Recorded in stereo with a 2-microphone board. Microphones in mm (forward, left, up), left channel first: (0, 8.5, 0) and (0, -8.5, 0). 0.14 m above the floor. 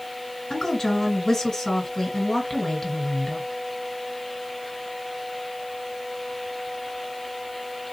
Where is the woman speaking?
30° left (ahead or behind), 1.8 m.